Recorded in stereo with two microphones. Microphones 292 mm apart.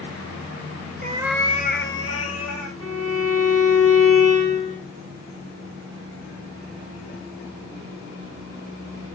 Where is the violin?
50° right (ahead or behind), 3.5 m.